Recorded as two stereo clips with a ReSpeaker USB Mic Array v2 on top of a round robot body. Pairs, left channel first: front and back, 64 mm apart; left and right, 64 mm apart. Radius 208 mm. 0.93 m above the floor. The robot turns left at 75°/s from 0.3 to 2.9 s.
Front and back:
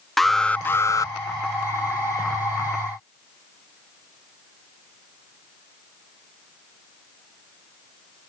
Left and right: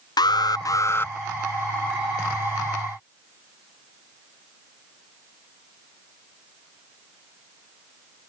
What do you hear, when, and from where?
0.2 s an alarm: 85° left; by 1.1 s 25° left